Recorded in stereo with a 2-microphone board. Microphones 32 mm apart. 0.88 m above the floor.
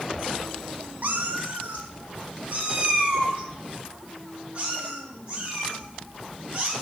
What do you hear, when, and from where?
1.0 s a cat meowing: 55° right (ahead or behind), 0.6 m; by 6.7 s 40° right (ahead or behind), 7.5 m